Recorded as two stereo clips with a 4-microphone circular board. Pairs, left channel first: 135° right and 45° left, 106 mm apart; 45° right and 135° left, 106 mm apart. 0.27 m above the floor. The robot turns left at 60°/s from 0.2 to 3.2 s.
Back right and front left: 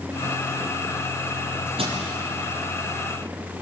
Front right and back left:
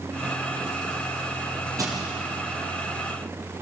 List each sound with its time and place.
1.8 s crushing: 75° left, 7.5 m; by 2.0 s 65° left, 7.5 m